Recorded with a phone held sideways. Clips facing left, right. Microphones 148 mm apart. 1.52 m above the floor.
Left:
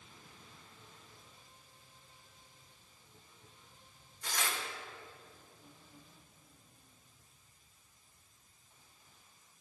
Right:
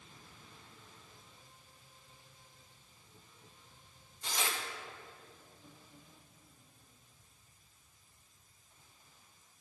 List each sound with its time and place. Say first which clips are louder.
4.2 s tearing paper: right 1 dB; 25° right (ahead or behind), 0.7 m